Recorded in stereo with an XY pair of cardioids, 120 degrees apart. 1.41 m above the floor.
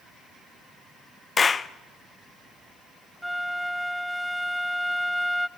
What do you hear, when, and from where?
1.4 s a clap: 30° left, 0.8 m
3.2 s a flute: straight ahead, 0.5 m